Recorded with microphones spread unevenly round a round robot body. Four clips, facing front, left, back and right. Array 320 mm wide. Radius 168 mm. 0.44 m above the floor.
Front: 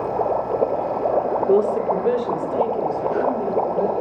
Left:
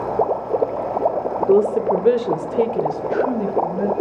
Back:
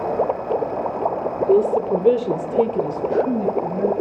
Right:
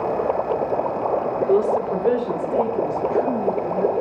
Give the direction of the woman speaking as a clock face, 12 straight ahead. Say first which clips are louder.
Left 4 dB, back 3 dB; 8 o'clock.